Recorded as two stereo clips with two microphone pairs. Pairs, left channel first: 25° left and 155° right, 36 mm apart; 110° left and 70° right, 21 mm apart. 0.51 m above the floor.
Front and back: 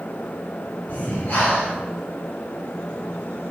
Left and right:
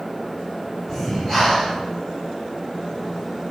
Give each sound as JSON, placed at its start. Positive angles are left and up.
{"t": 0.9, "sound": "breathing", "azimuth_deg": 45, "distance_m": 1.5}